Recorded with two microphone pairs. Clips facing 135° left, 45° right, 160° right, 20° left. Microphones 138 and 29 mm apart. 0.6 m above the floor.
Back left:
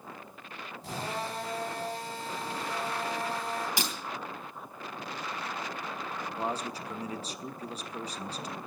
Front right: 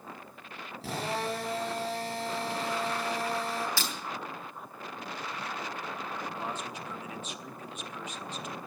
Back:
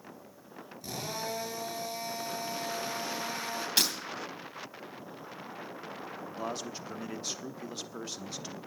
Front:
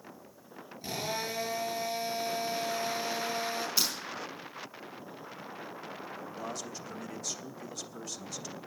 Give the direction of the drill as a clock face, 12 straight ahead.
1 o'clock.